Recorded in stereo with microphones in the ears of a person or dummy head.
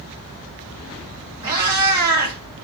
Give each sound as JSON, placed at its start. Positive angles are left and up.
{"t": 1.4, "sound": "a cat meowing", "side_deg": -20, "distance_m": 1.9}